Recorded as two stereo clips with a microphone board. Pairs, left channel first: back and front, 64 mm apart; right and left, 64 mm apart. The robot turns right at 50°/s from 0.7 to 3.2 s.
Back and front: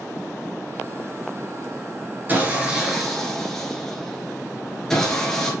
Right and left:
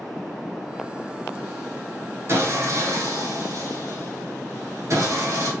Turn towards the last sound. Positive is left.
turn(degrees=100)